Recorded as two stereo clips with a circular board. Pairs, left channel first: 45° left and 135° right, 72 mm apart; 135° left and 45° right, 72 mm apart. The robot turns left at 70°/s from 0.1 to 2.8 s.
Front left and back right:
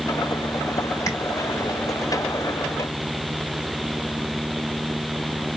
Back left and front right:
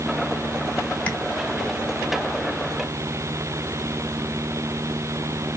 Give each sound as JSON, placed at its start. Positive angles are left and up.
{"t": 1.1, "sound": "tapping", "azimuth_deg": 65, "distance_m": 1.4}